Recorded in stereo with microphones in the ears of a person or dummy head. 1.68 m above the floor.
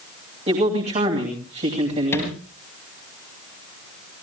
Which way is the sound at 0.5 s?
35° right (ahead or behind).